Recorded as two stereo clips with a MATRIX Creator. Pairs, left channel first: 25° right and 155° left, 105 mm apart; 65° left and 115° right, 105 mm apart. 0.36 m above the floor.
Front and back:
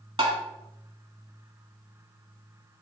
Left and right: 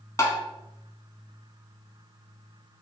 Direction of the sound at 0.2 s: 125° left.